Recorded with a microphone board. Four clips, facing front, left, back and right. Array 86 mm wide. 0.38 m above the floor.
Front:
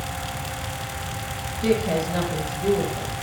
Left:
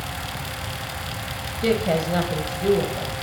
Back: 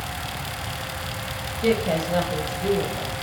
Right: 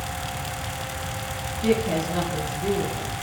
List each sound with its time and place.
1.6 s a woman speaking: 105° left, 1.7 m